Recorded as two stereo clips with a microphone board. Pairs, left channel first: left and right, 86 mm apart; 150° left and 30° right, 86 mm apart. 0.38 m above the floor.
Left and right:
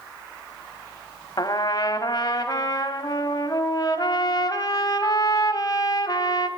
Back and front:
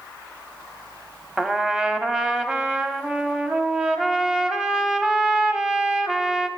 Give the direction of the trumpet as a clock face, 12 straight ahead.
10 o'clock.